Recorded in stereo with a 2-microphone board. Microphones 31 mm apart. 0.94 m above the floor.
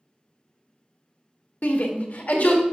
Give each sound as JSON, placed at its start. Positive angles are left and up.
{"t": 1.6, "sound": "a shout", "side_deg": 65, "distance_m": 1.6}